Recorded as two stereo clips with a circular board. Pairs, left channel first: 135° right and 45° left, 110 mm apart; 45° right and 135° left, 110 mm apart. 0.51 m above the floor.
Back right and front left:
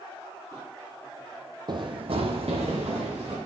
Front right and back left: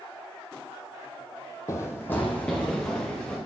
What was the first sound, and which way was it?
Running footsteps, 10° left.